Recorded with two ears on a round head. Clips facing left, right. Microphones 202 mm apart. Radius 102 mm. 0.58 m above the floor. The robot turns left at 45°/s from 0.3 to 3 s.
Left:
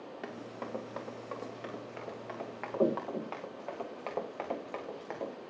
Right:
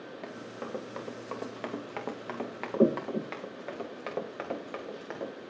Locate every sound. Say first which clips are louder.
0.2 s running footsteps: right 1 dB; 5° left (ahead or behind), 3.5 m; by 5.3 s 5° right (ahead or behind), 4.5 m